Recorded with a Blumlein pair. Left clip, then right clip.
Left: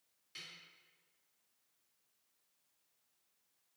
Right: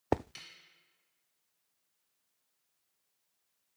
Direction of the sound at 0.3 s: 20° right.